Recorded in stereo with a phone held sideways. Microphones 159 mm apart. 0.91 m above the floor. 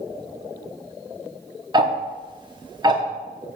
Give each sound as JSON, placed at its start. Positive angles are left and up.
{"t": 1.7, "sound": "ticking", "side_deg": -30, "distance_m": 0.9}